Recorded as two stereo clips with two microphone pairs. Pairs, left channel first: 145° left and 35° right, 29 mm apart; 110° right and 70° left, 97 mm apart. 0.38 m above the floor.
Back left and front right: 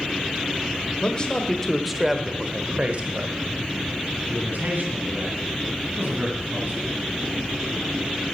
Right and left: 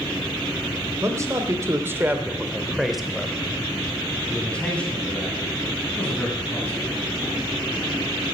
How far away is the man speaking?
About 1.1 m.